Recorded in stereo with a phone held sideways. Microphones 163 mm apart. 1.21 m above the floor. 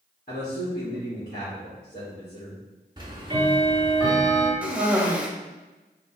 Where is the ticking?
25° right (ahead or behind), 0.9 m.